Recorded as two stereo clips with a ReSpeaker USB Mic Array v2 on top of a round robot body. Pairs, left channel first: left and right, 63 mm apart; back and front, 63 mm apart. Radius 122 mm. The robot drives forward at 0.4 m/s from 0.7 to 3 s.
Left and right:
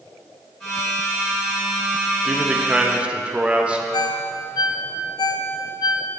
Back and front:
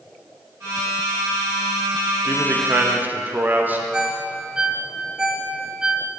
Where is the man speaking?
20° right, 1.3 m; by 3.8 s 35° right, 1.1 m.